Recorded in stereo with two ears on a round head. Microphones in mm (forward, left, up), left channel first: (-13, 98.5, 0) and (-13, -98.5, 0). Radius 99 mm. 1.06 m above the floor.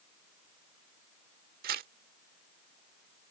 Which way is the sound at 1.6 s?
45° right (ahead or behind).